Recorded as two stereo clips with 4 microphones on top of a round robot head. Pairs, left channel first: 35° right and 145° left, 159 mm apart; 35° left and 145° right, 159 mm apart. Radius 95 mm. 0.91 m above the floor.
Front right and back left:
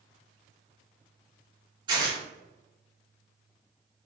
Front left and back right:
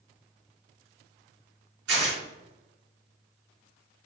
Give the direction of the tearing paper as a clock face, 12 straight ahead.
5 o'clock.